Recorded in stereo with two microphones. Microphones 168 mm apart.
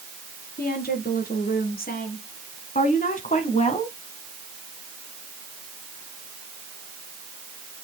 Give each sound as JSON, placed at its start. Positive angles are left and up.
{"t": 0.6, "sound": "a woman speaking", "side_deg": 65, "distance_m": 4.0}